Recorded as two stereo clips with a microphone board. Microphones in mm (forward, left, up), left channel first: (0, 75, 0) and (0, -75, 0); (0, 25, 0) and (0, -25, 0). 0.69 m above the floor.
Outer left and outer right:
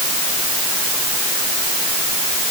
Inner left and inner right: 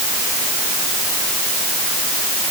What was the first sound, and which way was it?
Only background noise.